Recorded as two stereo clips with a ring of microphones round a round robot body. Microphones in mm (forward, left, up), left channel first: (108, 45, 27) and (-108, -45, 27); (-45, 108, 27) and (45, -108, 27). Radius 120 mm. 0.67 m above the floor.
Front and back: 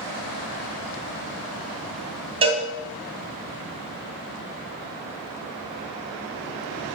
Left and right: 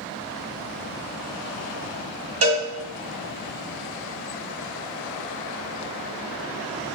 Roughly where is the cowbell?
Right.